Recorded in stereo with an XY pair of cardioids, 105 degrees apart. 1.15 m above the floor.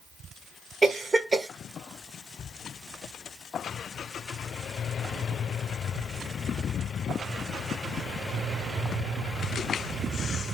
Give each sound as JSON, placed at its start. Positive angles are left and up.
{"t": 0.8, "sound": "a cough", "azimuth_deg": -25, "distance_m": 1.2}